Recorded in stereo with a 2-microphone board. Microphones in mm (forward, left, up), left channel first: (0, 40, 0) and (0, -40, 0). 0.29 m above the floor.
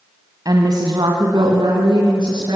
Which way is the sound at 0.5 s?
55° right (ahead or behind).